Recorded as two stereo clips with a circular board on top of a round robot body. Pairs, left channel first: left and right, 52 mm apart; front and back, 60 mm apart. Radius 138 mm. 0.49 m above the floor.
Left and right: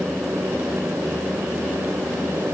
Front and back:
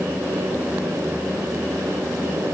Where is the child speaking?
No child speaking in this recording.